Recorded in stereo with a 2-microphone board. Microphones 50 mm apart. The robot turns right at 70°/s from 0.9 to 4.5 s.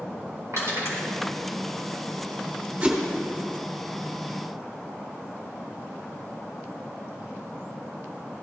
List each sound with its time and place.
0.5 s crushing: 75° right (ahead or behind), 4.5 m; by 1.1 s 65° right (ahead or behind), 4.5 m
2.8 s a whoosh: 25° right (ahead or behind), 2.0 m; by 3.0 s 10° right (ahead or behind), 2.0 m